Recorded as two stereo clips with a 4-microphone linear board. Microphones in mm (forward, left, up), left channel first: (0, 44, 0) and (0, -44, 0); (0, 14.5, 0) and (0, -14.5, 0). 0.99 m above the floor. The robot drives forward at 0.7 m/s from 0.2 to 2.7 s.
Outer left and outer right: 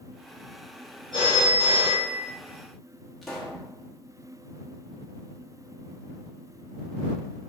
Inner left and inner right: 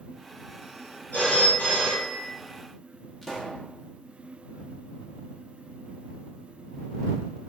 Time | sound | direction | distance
1.1 | a phone ringing | 75° left (ahead or behind) | 2 m
3.2 | a pop | centre (ahead or behind) | 0.9 m